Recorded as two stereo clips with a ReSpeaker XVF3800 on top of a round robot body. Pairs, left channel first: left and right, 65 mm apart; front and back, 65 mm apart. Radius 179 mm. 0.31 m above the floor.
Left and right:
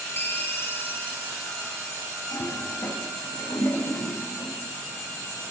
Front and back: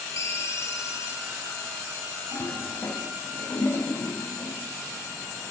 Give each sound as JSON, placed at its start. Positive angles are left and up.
{"t": 0.2, "sound": "a ringtone", "azimuth_deg": 40, "distance_m": 1.8}
{"t": 2.3, "sound": "a toilet flushing", "azimuth_deg": 65, "distance_m": 3.5}